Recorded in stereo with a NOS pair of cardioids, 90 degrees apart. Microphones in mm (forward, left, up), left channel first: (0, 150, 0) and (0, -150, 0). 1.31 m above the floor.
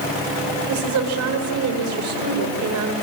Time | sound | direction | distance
0.7 | a woman speaking | 60° right | 5 m